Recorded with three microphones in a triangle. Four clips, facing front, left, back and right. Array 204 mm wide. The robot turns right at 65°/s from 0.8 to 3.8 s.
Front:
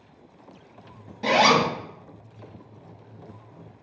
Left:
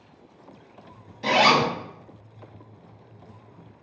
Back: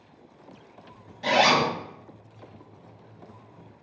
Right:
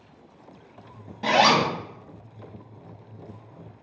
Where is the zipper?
50° right, 0.7 m; by 1.7 s 20° right, 0.7 m.